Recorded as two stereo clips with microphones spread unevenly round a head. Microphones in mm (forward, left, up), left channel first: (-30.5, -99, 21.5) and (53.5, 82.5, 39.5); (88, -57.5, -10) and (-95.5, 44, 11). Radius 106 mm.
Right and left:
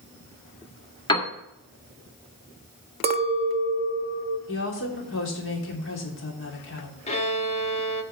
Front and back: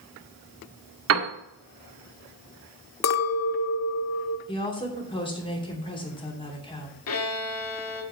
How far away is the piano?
About 1.5 m.